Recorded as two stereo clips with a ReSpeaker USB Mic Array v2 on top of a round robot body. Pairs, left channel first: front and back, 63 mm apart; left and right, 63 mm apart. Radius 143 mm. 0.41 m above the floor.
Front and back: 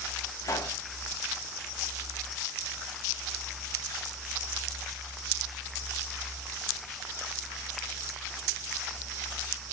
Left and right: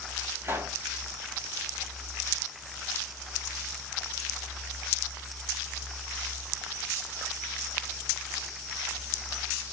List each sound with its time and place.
0.4 s a pop: 35° right, 1.9 m